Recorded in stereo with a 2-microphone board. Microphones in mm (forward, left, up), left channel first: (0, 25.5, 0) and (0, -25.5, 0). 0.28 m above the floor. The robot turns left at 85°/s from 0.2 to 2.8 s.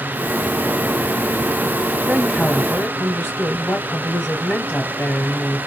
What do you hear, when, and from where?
2.1 s a woman speaking: 160° right, 1.5 m; by 5.6 s 140° left, 1.5 m